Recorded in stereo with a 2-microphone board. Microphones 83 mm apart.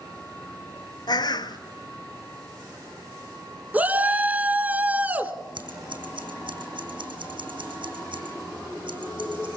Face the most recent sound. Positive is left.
turn(degrees=-80)